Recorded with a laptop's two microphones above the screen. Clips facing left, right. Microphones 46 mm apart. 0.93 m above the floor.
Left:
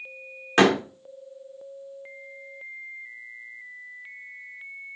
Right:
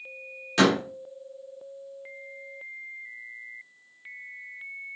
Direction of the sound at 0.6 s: 40° left (ahead or behind).